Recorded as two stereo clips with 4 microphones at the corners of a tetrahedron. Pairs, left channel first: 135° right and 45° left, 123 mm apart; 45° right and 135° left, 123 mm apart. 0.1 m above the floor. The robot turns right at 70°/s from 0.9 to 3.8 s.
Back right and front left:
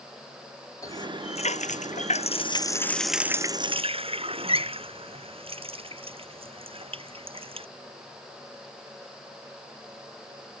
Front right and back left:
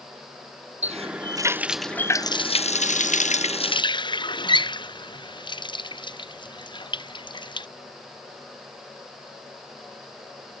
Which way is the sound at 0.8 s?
165° left.